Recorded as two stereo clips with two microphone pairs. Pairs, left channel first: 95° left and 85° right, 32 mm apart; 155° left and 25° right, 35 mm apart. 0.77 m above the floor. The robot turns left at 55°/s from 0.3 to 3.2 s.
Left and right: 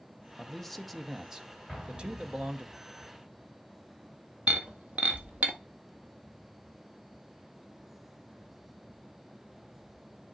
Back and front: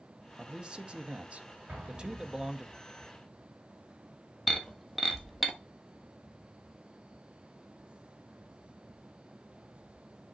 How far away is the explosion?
About 3.5 m.